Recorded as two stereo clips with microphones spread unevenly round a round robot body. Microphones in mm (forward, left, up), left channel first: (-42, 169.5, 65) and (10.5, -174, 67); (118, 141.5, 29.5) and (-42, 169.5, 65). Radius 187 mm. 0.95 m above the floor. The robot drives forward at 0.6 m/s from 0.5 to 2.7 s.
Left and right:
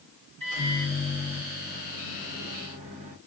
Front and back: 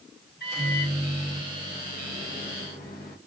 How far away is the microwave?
About 3 m.